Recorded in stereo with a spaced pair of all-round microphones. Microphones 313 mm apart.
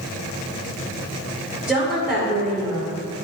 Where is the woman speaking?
5° right (ahead or behind), 5 m.